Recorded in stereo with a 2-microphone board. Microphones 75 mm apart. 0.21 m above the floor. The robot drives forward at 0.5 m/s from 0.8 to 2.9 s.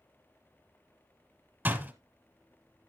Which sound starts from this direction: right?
A door slam, at 1.6 s.